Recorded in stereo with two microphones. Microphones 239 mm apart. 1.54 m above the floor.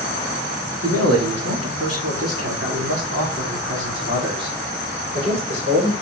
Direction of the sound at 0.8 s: 80° right.